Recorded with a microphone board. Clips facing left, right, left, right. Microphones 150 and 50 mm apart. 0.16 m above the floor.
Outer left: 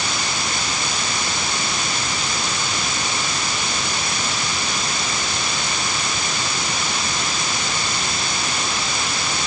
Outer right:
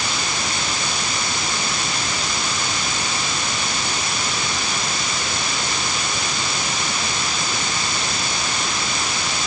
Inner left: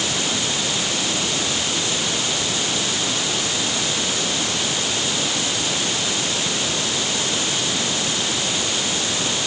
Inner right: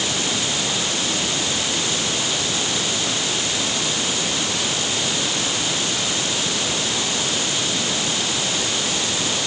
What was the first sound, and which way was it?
Only background noise.